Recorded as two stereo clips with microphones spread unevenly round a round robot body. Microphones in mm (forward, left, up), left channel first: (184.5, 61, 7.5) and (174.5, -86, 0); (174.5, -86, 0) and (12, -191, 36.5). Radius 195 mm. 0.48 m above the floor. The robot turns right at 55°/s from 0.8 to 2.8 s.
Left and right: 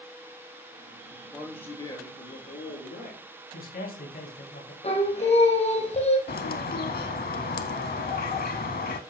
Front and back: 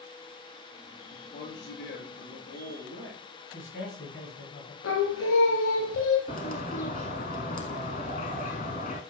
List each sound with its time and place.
1.1 s a man speaking: 20° right, 8 m; by 3.3 s 70° left, 8 m
3.5 s a man speaking: 85° left, 4 m
4.8 s singing: 40° left, 3 m
6.3 s a bird: 105° left, 0.7 m